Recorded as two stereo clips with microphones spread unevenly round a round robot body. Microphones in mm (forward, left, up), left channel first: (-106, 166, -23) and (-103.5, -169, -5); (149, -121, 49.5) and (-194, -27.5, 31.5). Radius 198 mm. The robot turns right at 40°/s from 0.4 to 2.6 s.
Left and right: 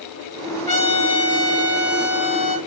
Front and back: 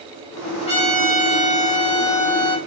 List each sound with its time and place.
0.7 s a trumpet: 30° left, 1.0 m; by 2.6 s 110° left, 1.0 m